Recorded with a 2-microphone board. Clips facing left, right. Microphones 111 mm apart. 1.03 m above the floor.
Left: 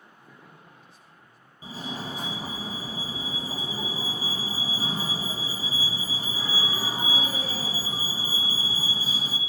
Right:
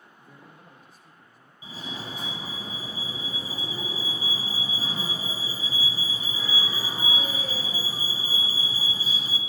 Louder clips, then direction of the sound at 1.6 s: Left 3 dB; 40° left (ahead or behind).